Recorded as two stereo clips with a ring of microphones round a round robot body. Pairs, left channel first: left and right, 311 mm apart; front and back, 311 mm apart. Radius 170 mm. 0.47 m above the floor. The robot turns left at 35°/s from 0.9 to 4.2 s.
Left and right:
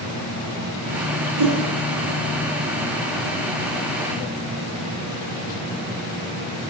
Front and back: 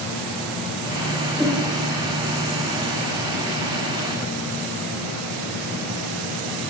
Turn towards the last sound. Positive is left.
turn(degrees=175)